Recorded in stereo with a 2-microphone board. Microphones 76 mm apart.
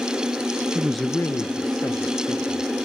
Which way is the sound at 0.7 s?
30° right (ahead or behind).